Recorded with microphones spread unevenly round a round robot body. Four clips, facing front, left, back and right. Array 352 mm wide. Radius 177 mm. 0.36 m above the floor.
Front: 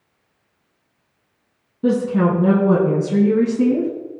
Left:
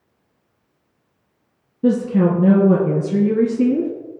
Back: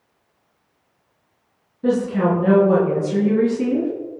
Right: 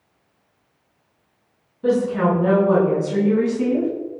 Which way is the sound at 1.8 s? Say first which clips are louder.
Left 2 dB, front 1 dB; 50° left.